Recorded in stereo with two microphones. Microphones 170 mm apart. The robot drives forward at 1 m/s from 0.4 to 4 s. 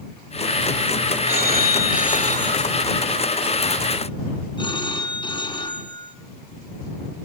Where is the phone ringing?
75° left (ahead or behind), 1.7 m; by 6.2 s 30° left (ahead or behind), 3.5 m.